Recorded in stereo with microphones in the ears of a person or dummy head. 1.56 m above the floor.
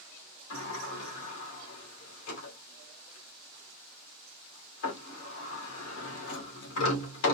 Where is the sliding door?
80° left, 1.9 m.